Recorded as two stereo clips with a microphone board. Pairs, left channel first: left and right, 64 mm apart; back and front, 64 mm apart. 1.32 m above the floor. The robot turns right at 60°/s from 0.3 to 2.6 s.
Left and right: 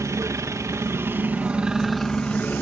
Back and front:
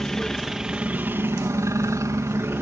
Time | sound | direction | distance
0.0 | a helicopter | 100° right | ?